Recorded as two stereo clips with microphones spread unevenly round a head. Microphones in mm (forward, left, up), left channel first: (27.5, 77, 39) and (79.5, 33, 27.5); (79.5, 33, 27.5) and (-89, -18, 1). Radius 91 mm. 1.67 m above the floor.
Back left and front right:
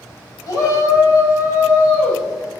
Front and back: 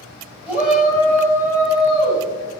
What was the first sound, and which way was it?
A shout, 115° left.